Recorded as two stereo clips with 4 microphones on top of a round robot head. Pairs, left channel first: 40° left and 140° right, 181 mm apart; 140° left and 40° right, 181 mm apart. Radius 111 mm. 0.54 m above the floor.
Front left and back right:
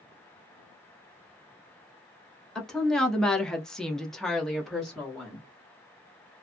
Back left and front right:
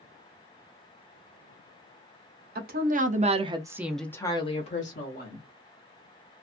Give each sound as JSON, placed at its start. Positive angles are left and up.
{"t": 2.5, "sound": "a woman speaking", "azimuth_deg": -50, "distance_m": 1.1}